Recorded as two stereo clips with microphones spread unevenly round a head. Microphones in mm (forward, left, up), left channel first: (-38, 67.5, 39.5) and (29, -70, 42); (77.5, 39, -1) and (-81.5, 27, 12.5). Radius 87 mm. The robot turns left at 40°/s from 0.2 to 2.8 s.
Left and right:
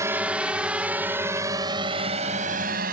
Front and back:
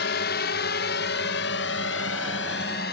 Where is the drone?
5° left; by 2.9 s 30° right.